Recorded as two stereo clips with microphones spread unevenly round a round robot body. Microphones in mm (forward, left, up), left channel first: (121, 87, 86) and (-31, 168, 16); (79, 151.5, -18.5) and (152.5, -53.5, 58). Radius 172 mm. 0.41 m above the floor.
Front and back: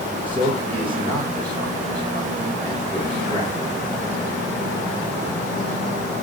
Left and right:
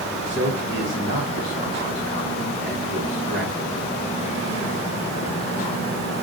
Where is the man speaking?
125° right, 2 m.